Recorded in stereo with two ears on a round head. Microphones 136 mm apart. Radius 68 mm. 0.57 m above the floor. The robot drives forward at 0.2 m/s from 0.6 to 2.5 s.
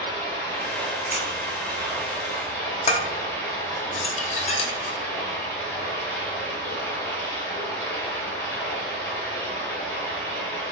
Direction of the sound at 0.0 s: 25° left (ahead or behind).